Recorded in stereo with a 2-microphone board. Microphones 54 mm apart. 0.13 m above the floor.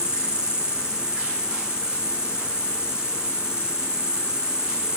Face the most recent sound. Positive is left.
turn(degrees=-20)  # may be behind; listen again after turning